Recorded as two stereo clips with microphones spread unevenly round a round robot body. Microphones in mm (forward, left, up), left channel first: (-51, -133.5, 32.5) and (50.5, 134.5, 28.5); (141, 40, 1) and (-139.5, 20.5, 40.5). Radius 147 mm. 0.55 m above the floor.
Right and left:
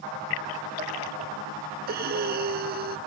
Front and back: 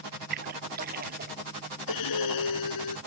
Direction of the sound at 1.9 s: 10° left.